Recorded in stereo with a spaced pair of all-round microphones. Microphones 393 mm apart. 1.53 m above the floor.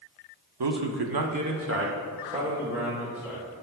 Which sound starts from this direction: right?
A man speaking, at 0.6 s.